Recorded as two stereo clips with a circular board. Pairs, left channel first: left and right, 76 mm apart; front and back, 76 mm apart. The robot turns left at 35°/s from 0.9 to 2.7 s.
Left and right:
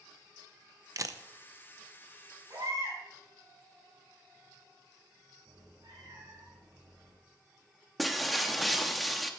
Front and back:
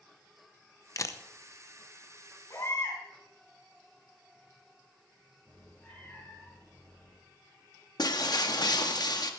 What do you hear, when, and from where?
1.0 s a camera shutter: 45° right, 0.7 m; by 1.2 s 55° right, 0.7 m
2.5 s a baby crying: 50° right, 4.5 m; by 3.0 s 55° right, 4.5 m
5.5 s a cat meowing: 75° right, 5.5 m
8.0 s breaking glass: straight ahead, 1.0 m